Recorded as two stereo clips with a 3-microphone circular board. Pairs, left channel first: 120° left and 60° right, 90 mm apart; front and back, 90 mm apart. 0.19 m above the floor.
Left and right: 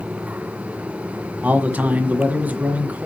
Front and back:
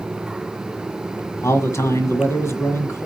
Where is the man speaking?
5° right, 1.7 m.